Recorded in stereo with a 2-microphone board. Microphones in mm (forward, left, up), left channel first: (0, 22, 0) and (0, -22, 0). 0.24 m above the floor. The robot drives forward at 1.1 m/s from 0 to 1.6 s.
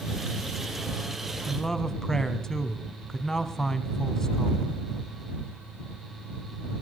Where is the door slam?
I don't hear a door slam.